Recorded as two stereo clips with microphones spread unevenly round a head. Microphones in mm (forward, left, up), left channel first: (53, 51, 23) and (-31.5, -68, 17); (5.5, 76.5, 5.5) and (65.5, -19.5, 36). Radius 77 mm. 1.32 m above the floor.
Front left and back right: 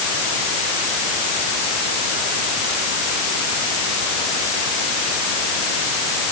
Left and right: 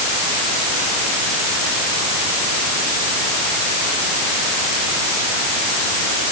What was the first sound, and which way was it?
Only background noise.